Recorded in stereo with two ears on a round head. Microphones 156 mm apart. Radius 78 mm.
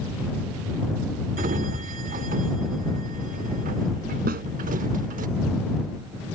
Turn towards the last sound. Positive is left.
turn(degrees=-55)  # may be behind; listen again after turning